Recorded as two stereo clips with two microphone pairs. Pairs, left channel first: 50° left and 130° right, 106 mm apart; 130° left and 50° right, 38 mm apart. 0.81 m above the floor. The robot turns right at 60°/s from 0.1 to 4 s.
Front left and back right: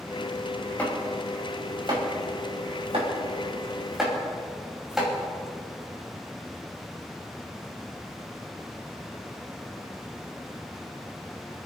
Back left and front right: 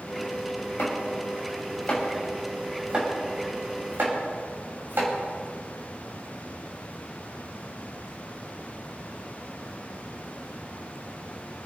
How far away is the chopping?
About 4.5 m.